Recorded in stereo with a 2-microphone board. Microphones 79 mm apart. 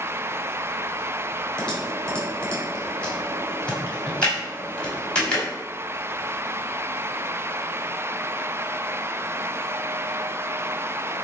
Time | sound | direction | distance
1.6 | typing on a keyboard | 10° left (ahead or behind) | 3 m